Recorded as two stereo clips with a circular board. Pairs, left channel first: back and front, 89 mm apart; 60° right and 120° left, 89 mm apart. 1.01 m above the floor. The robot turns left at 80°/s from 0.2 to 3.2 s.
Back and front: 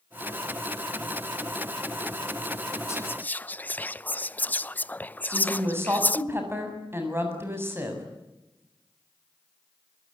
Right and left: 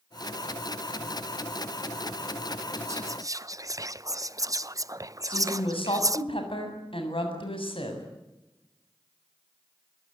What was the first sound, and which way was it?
Whispering, 145° left.